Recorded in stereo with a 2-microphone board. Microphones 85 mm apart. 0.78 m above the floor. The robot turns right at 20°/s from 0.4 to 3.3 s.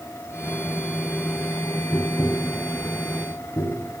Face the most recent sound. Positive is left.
turn(degrees=40)  # may be behind; listen again after turning